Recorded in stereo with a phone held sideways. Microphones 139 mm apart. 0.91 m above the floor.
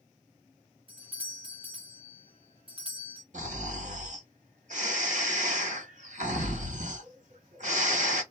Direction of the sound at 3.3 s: 60° right (ahead or behind).